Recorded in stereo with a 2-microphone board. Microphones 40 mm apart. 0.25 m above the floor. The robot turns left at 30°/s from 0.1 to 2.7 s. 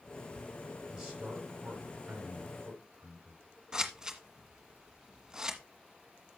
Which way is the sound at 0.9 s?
15° right (ahead or behind).